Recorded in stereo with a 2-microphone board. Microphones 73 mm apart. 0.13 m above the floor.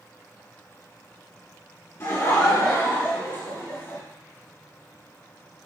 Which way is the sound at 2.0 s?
45° left (ahead or behind).